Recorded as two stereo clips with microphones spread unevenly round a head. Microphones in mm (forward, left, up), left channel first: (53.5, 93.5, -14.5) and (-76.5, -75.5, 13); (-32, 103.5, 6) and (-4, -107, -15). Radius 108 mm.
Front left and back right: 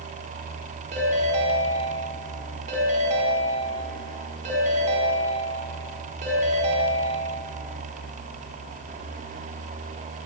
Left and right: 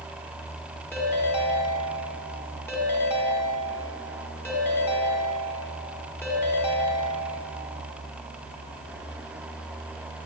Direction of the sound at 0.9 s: 175° left.